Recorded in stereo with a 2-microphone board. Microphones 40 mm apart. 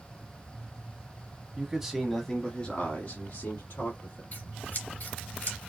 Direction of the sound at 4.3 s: 45° left (ahead or behind).